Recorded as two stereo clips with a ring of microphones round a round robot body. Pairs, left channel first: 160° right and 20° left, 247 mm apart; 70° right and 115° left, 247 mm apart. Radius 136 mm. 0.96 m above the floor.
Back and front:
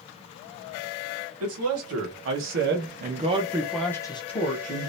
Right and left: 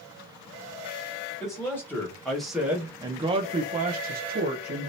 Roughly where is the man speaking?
Ahead.